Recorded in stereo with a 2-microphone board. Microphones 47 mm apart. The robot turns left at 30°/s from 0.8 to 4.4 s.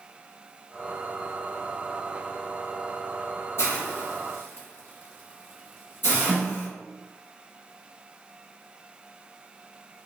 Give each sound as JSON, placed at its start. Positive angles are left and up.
{"t": 3.6, "sound": "a hiss", "side_deg": 65, "distance_m": 1.4}
{"t": 6.3, "sound": "a snare drum", "side_deg": 10, "distance_m": 1.1}